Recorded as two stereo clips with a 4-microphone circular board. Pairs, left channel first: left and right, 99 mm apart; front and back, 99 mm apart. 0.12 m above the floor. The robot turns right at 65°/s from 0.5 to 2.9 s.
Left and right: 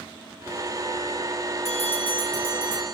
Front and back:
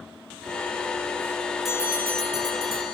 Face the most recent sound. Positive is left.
turn(degrees=170)